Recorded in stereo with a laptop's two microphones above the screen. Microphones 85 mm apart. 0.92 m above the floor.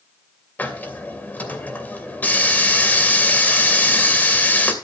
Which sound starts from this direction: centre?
A hiss, at 0.6 s.